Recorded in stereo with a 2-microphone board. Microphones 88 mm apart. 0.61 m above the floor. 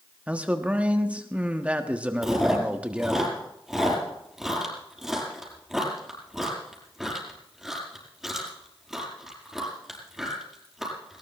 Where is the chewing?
Centre (ahead or behind), 5 m.